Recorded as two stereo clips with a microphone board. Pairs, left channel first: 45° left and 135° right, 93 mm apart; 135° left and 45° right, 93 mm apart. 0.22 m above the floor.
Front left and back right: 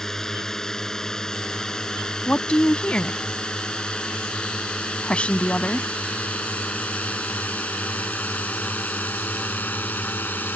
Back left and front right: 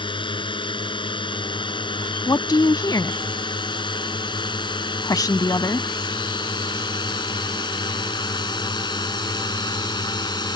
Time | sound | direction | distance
0.0 | a drone | 130° left | ?
2.3 | a woman speaking | 120° left | ?